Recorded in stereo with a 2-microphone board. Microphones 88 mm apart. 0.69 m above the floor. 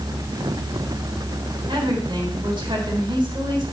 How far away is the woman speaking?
About 3.5 m.